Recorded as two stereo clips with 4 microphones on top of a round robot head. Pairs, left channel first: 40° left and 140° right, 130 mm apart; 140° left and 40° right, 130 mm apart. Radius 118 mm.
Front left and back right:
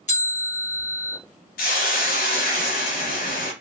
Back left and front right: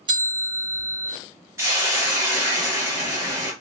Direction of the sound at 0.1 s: 15° left.